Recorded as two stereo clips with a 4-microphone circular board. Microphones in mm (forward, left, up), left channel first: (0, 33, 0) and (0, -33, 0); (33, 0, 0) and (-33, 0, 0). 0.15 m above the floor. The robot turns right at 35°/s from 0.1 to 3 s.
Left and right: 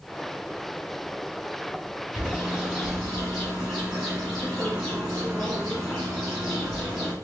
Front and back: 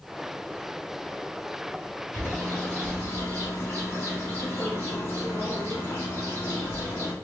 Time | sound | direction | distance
2.1 | a bird | 30° right | 1.7 m